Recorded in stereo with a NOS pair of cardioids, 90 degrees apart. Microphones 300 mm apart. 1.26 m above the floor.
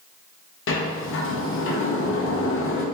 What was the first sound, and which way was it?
A sliding door, 45° left.